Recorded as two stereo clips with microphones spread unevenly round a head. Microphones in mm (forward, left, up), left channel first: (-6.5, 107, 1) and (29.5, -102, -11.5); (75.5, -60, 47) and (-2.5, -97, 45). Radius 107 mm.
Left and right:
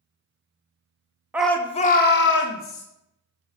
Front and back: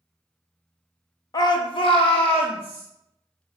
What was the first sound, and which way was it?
A shout, 5° left.